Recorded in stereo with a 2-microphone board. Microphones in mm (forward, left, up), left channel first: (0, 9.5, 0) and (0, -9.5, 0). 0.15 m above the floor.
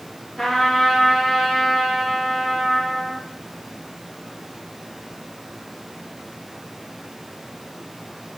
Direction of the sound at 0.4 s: 20° left (ahead or behind).